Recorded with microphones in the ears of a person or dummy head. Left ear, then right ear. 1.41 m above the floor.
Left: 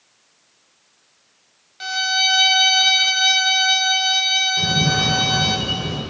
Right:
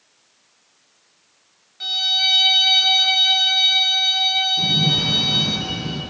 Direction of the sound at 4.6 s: 55° left (ahead or behind).